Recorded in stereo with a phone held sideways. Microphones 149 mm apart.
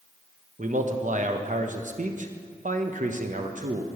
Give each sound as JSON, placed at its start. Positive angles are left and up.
{"t": 0.6, "sound": "a man speaking", "side_deg": -60, "distance_m": 0.8}